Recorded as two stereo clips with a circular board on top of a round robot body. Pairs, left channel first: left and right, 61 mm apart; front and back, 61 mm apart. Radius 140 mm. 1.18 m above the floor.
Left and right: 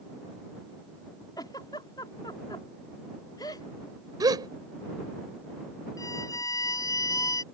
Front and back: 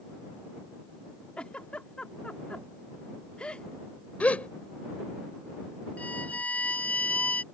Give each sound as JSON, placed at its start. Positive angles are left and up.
{"t": 1.4, "sound": "a giggle", "azimuth_deg": 75}
{"t": 4.2, "sound": "a gasp", "azimuth_deg": -70}
{"t": 6.0, "sound": "a violin", "azimuth_deg": 65}